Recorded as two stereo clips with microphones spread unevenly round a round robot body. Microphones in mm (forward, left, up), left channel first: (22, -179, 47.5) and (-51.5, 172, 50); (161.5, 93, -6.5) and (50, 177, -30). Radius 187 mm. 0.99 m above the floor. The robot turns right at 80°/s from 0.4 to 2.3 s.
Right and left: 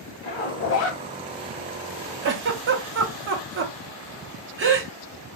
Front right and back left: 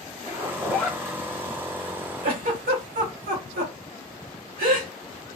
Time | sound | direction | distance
0.2 | a zipper | 130° right | 0.9 m
2.2 | a giggle | 150° left | 0.7 m